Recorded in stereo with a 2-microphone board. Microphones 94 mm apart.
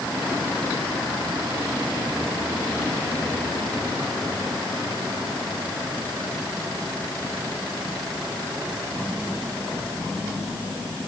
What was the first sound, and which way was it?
Only background noise.